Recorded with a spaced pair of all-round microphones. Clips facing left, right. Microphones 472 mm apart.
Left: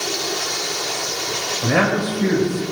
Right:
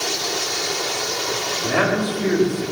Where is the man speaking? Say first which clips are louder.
Left 2 dB; 80° left, 3.5 m.